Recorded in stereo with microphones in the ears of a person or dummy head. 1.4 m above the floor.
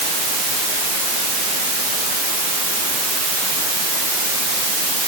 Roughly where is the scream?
No scream in this recording.